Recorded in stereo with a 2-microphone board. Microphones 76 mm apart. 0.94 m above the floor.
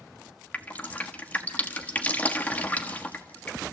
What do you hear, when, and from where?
0.5 s dripping: 20° left (ahead or behind), 1.4 m